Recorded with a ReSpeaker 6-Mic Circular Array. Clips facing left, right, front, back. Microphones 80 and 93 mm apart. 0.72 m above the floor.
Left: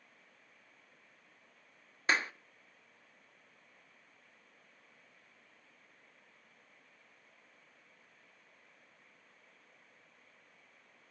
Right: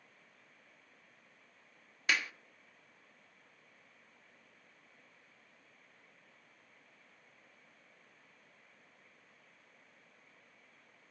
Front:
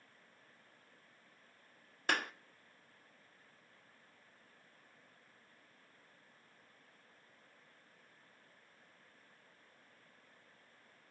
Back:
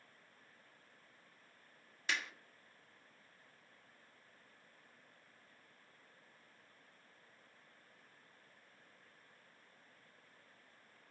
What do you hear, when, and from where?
2.1 s a clap: 35° left, 0.5 m